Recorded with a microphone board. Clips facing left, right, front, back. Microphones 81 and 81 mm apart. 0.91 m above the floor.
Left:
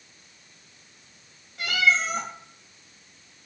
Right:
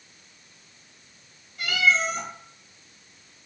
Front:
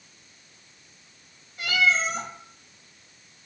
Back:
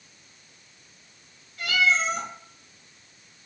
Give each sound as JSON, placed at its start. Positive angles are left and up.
{"t": 1.6, "sound": "a cat meowing", "azimuth_deg": 70, "distance_m": 1.2}